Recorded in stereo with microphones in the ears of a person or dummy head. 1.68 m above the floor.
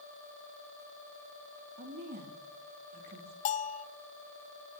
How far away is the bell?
About 0.6 m.